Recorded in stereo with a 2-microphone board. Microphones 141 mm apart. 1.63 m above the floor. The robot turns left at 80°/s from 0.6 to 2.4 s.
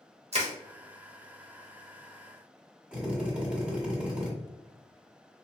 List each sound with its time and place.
0.3 s crushing: 50° right (ahead or behind), 0.9 m
2.9 s a drill: 10° right (ahead or behind), 1.6 m